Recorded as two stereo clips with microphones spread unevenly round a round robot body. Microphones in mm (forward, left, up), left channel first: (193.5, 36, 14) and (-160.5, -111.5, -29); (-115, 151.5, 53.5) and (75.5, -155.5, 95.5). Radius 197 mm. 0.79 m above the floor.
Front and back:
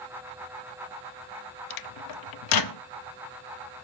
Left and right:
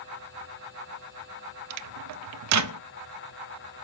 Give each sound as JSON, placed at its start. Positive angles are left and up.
{"t": 1.7, "sound": "a microwave", "azimuth_deg": -15, "distance_m": 0.6}